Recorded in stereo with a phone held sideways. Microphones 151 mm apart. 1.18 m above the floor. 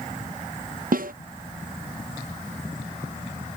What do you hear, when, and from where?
0.9 s a snare drum: 70° right (ahead or behind)